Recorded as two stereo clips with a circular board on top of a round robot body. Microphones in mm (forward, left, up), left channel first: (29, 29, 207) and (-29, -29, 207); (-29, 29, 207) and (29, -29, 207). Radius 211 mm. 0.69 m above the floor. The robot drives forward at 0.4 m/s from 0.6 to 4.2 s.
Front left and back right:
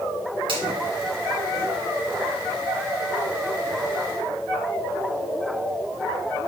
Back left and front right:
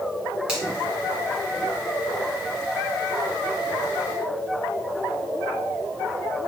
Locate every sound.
0.5 s a finger snap: 125° right, 2 m